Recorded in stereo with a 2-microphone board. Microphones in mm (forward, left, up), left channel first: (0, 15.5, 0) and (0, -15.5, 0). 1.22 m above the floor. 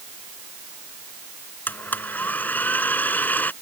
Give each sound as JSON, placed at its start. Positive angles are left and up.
{"t": 1.7, "sound": "a blender", "side_deg": 70}